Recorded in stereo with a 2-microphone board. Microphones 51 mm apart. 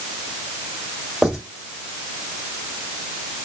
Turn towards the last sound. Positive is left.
turn(degrees=-10)  # may be behind; listen again after turning